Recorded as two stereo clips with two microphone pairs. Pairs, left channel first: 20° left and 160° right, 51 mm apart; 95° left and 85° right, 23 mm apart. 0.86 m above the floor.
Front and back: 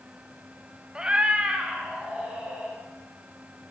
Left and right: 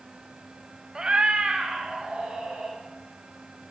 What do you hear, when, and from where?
0.9 s a cat meowing: 95° right, 0.7 m; by 2.8 s 90° right, 3 m